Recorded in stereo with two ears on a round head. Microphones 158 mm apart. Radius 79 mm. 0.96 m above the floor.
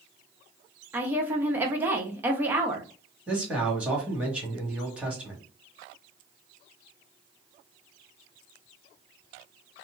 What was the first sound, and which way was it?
A woman speaking, 10° right (ahead or behind).